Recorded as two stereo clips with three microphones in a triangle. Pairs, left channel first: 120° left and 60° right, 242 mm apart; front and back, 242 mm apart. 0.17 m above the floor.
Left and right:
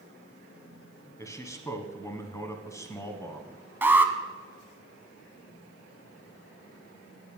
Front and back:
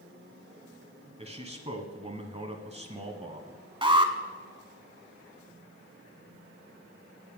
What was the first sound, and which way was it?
A man speaking, straight behind.